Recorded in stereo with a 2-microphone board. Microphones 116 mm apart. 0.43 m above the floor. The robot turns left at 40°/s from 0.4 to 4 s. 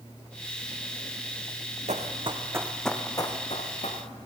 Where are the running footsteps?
75° right (ahead or behind), 1.6 m; by 4.2 s 80° left, 2.5 m.